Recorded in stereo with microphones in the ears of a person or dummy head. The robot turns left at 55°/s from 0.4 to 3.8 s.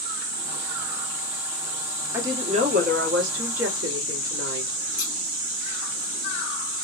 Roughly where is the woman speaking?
Ahead.